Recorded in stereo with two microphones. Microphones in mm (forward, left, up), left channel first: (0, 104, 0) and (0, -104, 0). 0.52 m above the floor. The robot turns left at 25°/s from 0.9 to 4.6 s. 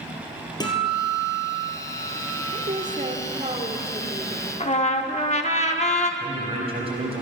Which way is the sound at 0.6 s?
160° left.